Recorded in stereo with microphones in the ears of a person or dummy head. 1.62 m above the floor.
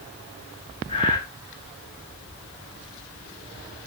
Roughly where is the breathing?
Left.